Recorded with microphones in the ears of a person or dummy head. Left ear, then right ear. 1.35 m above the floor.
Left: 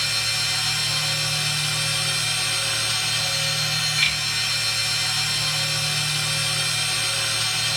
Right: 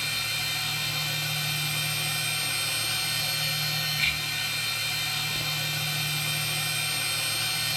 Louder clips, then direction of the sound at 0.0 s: Left 6 dB; 55° left (ahead or behind).